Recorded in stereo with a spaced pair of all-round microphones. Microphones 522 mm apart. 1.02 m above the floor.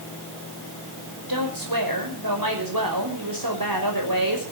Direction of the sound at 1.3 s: 40° right (ahead or behind).